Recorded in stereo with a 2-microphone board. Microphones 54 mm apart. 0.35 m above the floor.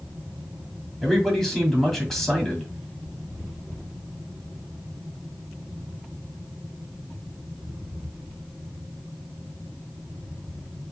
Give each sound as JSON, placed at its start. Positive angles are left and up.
{"t": 1.0, "sound": "a man speaking", "side_deg": 5, "distance_m": 2.0}